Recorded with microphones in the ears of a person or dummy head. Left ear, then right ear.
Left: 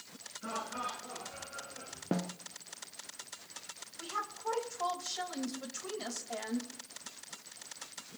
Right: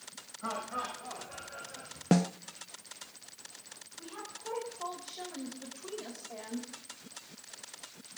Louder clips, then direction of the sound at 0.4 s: Right 2 dB; 55° right (ahead or behind).